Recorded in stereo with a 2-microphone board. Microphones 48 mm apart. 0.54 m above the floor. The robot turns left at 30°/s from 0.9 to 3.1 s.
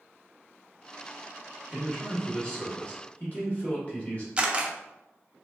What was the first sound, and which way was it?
A man speaking, 160° left.